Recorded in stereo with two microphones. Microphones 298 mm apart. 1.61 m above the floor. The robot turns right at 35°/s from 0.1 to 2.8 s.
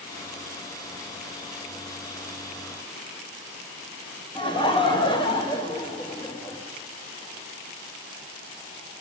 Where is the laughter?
15° left (ahead or behind), 1.5 m.